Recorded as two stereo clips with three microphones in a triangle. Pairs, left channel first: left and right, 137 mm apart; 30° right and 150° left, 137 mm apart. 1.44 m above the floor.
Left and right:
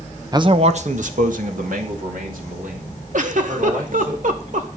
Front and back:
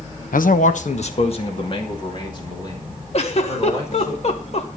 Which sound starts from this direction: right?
A giggle, at 3.1 s.